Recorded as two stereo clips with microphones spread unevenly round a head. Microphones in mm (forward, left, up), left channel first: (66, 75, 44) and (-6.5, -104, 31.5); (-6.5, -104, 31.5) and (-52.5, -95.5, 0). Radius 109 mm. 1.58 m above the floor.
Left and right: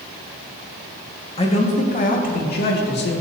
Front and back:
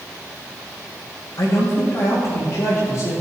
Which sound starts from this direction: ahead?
A man speaking, at 1.4 s.